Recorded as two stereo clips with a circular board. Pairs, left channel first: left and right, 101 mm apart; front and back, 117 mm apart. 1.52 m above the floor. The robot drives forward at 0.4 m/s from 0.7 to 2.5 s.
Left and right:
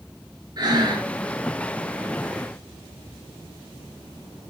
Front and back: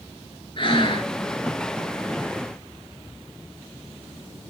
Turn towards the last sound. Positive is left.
turn(degrees=-45)